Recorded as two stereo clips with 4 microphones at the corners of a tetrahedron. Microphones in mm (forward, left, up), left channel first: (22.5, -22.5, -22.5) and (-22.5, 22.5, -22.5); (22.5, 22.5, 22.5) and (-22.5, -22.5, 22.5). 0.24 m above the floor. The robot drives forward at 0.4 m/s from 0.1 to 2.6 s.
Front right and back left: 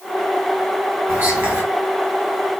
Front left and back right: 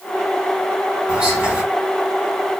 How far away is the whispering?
About 1.8 m.